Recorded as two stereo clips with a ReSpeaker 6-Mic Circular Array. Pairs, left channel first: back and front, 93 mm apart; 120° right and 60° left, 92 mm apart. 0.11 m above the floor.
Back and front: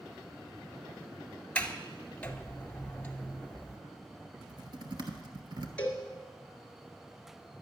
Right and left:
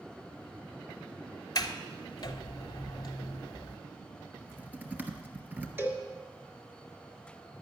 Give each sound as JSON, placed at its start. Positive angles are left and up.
{"t": 1.6, "sound": "a sliding door", "azimuth_deg": -110, "distance_m": 0.8}
{"t": 4.4, "sound": "typing on a keyboard", "azimuth_deg": -5, "distance_m": 1.1}
{"t": 5.8, "sound": "a cowbell", "azimuth_deg": 110, "distance_m": 1.5}